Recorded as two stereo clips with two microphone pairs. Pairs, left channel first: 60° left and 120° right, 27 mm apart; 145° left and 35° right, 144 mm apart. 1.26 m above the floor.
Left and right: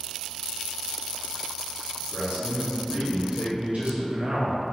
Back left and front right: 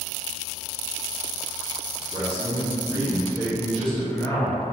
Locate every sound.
2.1 s a man speaking: 95° right, 1.3 m; by 4.8 s 170° right, 0.7 m